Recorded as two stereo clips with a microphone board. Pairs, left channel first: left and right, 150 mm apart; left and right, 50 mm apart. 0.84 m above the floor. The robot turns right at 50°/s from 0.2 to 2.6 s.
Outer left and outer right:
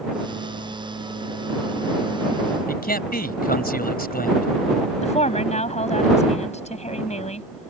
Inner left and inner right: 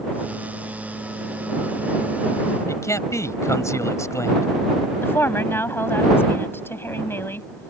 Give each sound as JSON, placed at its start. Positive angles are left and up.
{"t": 2.7, "sound": "a man speaking", "side_deg": 75}
{"t": 5.0, "sound": "a woman speaking", "side_deg": 45}